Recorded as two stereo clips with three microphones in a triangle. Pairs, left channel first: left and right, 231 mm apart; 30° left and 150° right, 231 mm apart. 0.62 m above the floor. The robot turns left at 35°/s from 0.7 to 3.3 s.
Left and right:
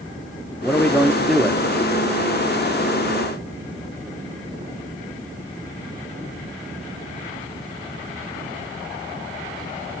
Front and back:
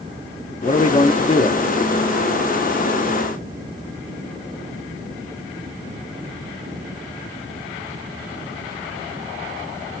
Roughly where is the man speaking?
Ahead.